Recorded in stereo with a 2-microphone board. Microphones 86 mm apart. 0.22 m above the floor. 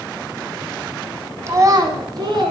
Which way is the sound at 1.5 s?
35° right (ahead or behind).